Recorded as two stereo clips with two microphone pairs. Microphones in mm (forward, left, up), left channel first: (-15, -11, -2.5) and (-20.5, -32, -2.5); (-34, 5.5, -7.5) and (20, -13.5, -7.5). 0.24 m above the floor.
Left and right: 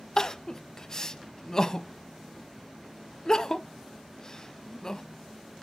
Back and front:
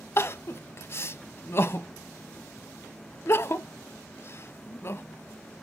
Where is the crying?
135° left, 0.6 m.